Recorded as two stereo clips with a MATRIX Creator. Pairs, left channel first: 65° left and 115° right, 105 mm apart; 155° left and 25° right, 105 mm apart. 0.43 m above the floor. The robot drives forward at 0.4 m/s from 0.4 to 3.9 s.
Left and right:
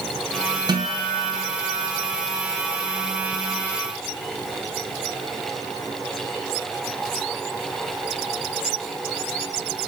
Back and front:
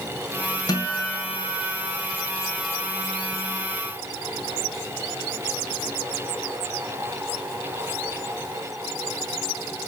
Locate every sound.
0.7 s a guitar: 155° right, 2.5 m; by 1.9 s 160° right, 3 m